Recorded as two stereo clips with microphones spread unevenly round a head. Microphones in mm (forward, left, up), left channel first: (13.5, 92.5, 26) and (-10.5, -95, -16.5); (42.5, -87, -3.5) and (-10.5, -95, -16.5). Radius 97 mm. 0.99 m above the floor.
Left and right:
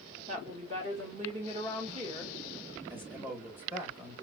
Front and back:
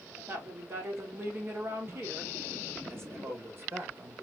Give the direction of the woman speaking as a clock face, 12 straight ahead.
5 o'clock.